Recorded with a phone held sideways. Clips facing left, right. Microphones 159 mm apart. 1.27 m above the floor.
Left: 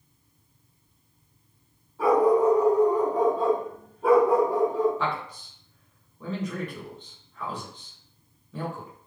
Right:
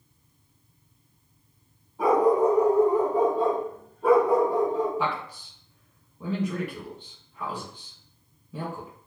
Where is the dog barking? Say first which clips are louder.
Left 1 dB; 20° right (ahead or behind), 1.0 m; by 4.9 s 15° left (ahead or behind), 1.4 m.